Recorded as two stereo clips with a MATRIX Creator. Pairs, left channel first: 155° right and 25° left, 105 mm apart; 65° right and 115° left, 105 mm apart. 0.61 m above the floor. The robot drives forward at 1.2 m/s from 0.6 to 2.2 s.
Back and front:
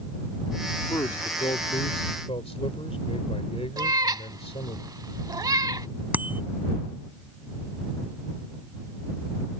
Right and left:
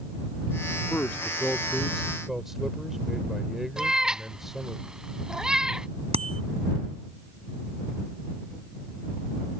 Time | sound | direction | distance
0.9 | a man speaking | 125° right | ?
3.8 | a cat meowing | 30° left | ?
6.1 | a bicycle bell | 95° left | ?